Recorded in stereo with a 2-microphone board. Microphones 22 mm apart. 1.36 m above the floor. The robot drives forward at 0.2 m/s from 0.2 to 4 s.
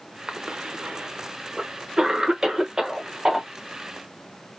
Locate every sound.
0.3 s a cough: 65° right (ahead or behind), 0.7 m; by 3.5 s 35° right (ahead or behind), 1.1 m